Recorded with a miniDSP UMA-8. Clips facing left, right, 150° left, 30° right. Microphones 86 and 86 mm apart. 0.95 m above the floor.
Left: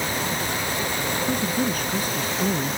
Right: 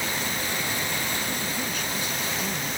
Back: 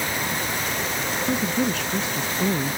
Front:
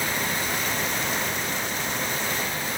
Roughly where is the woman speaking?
Behind left.